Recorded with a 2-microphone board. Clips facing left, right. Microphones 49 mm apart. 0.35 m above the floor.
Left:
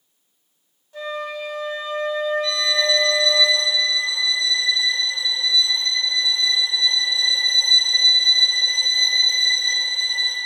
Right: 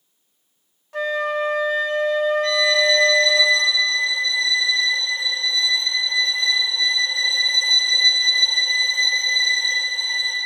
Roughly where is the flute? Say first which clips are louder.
Right 6 dB; right.